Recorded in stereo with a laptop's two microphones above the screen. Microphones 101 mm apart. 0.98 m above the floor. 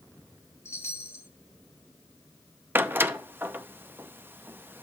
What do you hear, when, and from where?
0.7 s a chime: 30° left (ahead or behind), 1.3 m
2.8 s a door slam: 20° right (ahead or behind), 0.5 m